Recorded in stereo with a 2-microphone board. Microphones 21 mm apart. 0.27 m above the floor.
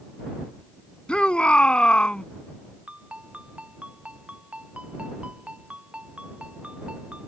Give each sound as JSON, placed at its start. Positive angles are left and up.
{"t": 1.1, "sound": "a shout", "side_deg": 60}
{"t": 2.9, "sound": "a ringtone", "side_deg": -75}